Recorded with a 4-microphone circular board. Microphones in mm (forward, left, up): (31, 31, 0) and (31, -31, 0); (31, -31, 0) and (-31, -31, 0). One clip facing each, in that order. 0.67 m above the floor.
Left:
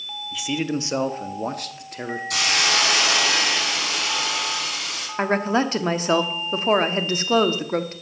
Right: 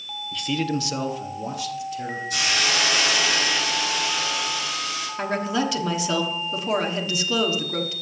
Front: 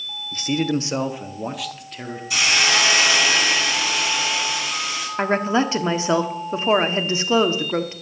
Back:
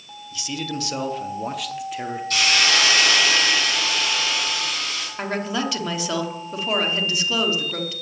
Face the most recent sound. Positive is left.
turn(degrees=50)